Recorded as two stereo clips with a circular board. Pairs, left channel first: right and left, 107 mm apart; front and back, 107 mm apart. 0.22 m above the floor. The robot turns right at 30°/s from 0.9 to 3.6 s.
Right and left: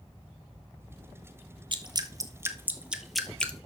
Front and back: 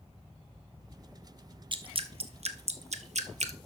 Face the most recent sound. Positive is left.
turn(degrees=-165)